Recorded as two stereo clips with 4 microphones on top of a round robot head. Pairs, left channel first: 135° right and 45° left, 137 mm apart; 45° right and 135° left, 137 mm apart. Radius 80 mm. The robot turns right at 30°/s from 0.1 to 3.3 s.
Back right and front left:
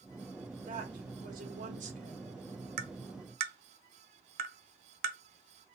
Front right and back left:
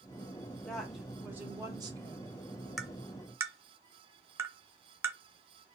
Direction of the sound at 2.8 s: 45° left.